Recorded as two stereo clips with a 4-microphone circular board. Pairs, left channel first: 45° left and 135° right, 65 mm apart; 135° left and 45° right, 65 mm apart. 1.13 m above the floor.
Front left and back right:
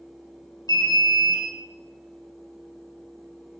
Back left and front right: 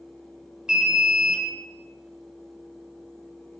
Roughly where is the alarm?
Ahead left.